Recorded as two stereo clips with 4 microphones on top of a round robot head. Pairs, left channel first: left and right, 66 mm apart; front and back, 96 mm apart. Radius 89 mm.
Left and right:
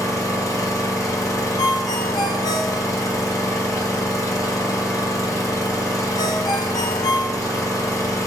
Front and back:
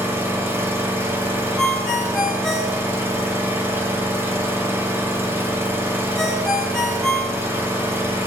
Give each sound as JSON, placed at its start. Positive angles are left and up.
{"t": 0.0, "sound": "an engine running", "azimuth_deg": 115, "distance_m": 0.9}
{"t": 1.6, "sound": "a ringtone", "azimuth_deg": 85, "distance_m": 0.6}